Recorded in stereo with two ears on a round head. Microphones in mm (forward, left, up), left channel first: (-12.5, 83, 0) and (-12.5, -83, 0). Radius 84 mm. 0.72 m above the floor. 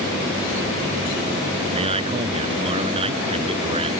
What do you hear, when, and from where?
1.7 s a man speaking: 30° right (ahead or behind)